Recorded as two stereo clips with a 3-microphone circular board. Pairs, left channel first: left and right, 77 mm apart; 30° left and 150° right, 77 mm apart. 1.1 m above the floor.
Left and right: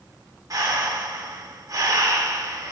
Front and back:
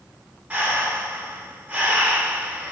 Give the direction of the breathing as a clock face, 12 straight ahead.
3 o'clock.